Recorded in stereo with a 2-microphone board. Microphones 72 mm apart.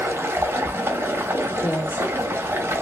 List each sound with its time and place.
0.0 s running water: 35° right (ahead or behind), 0.9 m
1.6 s a woman speaking: 30° left (ahead or behind), 1.8 m